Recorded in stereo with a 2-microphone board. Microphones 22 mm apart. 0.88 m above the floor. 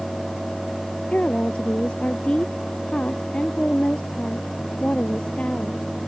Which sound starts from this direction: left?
A woman speaking, at 1.1 s.